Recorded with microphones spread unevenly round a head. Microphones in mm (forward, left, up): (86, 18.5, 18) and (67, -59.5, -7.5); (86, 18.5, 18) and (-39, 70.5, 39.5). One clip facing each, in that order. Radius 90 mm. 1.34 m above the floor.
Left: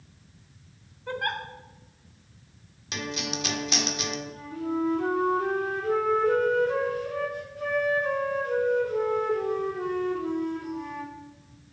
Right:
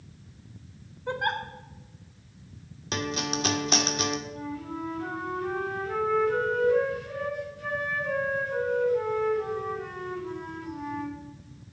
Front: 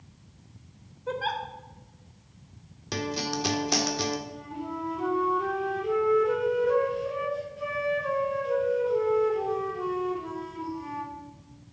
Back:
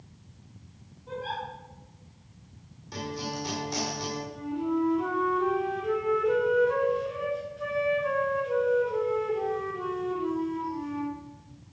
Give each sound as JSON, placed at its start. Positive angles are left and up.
{"t": 1.1, "sound": "a giggle", "azimuth_deg": -30, "distance_m": 1.5}
{"t": 2.9, "sound": "a guitar", "azimuth_deg": -55, "distance_m": 1.3}
{"t": 4.3, "sound": "a flute", "azimuth_deg": 65, "distance_m": 4.0}